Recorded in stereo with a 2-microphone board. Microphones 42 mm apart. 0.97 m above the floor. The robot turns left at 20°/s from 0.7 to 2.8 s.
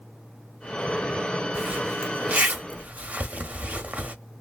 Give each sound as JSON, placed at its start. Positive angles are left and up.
{"t": 1.6, "sound": "a zipper", "side_deg": -40, "distance_m": 0.9}